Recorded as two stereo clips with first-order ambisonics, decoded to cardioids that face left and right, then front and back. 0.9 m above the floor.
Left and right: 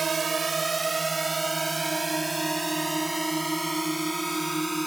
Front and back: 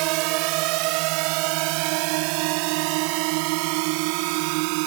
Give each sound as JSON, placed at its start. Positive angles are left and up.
{"t": 0.0, "sound": "a drone", "azimuth_deg": -160}